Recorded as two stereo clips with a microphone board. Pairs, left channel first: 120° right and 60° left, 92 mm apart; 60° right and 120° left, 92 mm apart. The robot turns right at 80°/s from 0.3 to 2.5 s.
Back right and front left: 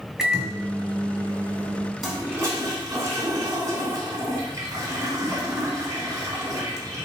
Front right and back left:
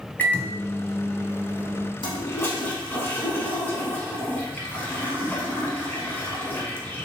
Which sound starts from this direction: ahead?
A microwave, at 0.2 s.